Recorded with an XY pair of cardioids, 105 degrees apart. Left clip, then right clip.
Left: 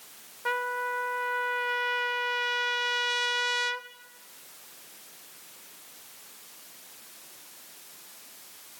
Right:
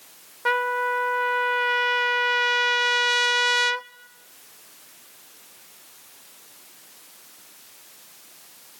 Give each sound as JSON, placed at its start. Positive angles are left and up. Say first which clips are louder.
{"t": 0.5, "sound": "a trumpet", "louder": "right 7 dB", "azimuth_deg": -45, "distance_m": 0.6}